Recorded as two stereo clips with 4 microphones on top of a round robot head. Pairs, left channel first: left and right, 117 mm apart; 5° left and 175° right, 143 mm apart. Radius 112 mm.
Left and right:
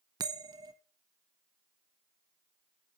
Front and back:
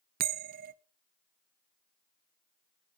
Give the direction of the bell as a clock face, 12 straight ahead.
5 o'clock.